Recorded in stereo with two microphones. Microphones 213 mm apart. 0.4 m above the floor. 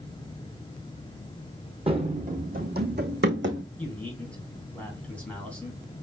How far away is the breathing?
No breathing in this recording.